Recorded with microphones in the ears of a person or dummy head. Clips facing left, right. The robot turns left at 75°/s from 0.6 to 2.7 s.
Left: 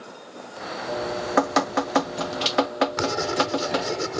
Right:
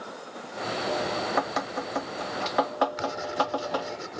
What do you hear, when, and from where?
0.9 s dripping: 165° left; by 4.0 s 30° left
3.0 s writing: 75° left (ahead or behind)